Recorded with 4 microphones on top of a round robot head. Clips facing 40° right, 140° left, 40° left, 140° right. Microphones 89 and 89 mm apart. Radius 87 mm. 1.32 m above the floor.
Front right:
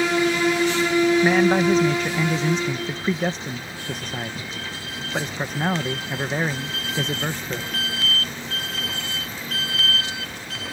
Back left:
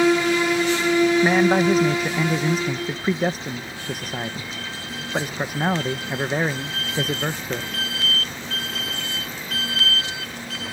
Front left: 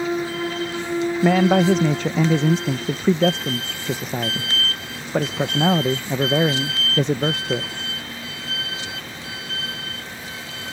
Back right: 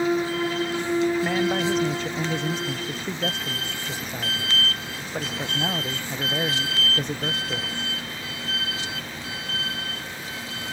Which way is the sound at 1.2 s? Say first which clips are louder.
Even, front left 7 dB; 55° left.